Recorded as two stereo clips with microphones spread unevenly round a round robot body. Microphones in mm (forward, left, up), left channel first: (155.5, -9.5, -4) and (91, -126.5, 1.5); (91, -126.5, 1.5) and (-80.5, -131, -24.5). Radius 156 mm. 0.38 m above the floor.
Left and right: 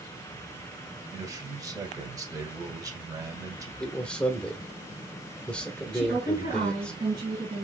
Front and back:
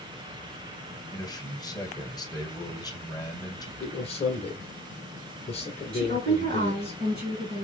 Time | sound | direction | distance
1.1 | a man speaking | 65° right | 1.5 m
3.8 | a man speaking | 5° right | 1.3 m
5.9 | a woman speaking | 165° right | 2.5 m